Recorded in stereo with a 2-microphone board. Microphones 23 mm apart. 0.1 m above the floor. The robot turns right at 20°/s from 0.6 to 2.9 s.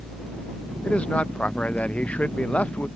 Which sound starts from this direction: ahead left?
A man speaking, at 0.8 s.